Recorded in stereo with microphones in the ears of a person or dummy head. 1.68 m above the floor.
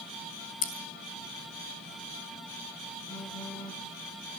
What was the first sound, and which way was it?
Scissors, 50° left (ahead or behind).